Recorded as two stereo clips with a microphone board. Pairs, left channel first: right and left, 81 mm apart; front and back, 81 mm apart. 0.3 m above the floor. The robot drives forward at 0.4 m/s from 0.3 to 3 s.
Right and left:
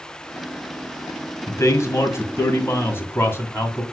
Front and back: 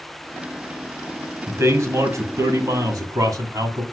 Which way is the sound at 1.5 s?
130° right.